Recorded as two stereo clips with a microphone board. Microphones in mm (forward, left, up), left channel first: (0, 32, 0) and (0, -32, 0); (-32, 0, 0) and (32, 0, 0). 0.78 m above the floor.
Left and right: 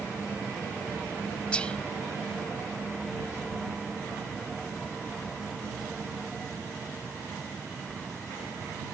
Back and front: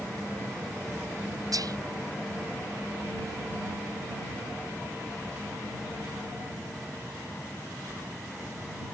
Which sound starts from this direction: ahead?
Whispering, at 1.5 s.